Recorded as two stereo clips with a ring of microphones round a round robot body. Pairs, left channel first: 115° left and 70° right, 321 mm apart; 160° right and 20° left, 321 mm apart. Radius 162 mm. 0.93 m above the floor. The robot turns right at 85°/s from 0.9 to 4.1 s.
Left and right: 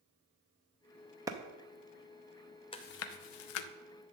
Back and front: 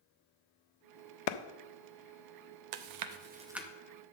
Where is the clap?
150° right, 0.6 m; by 1.4 s 140° right, 0.6 m.